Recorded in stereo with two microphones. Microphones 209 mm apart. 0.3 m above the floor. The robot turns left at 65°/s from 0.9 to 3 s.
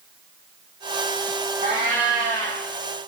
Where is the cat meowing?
145° right, 3.5 m; by 2.6 s 150° left, 3.5 m.